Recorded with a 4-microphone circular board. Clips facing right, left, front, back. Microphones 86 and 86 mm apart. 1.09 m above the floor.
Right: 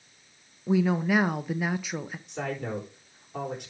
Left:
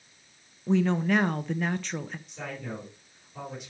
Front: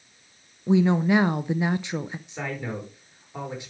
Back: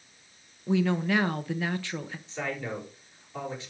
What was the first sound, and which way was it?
A woman speaking, 20° right.